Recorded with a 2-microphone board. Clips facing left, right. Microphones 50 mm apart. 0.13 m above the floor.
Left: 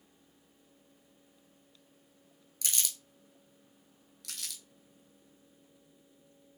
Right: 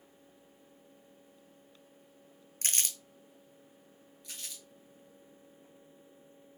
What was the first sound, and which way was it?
Crumpling, 45° right (ahead or behind).